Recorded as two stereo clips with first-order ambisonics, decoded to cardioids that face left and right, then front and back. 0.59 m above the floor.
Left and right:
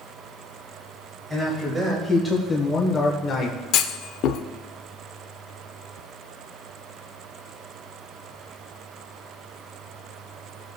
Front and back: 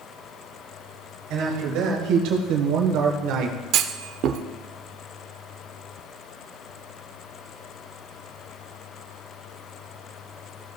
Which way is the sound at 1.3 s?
165° right.